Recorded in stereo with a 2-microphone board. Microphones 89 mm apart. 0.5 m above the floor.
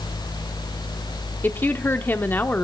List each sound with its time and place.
1.4 s a woman speaking: 20° left (ahead or behind), 1.0 m